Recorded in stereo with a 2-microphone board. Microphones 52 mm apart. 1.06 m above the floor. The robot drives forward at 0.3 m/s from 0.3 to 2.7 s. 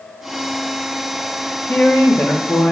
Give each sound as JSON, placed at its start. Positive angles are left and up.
{"t": 1.7, "sound": "a woman speaking", "side_deg": 40, "distance_m": 1.0}